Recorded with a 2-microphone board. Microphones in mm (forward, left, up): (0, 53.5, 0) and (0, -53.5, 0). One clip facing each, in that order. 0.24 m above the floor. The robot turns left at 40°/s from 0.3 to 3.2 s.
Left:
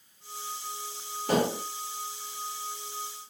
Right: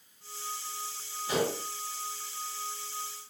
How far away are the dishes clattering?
About 4.5 m.